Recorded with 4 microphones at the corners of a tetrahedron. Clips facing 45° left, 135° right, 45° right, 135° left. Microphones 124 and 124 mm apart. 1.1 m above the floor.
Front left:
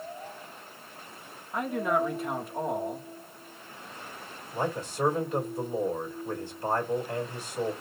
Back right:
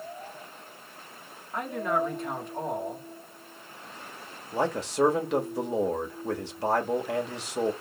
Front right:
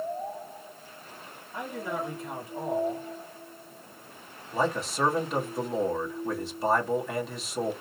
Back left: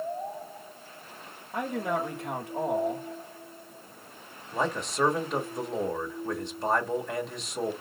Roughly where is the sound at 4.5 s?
Behind right.